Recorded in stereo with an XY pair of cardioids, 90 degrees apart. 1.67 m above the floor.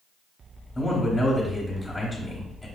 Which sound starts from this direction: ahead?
A man speaking, at 0.8 s.